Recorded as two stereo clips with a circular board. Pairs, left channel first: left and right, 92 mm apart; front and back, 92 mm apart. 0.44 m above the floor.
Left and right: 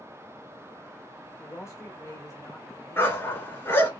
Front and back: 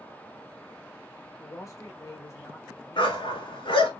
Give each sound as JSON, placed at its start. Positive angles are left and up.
{"t": 1.4, "sound": "a man speaking", "azimuth_deg": 40, "distance_m": 1.2}
{"t": 3.0, "sound": "a dog barking", "azimuth_deg": 25, "distance_m": 1.7}